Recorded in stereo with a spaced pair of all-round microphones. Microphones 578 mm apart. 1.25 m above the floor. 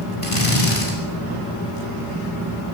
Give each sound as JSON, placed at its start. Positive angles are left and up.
{"t": 0.2, "sound": "a drill", "side_deg": 70, "distance_m": 9.0}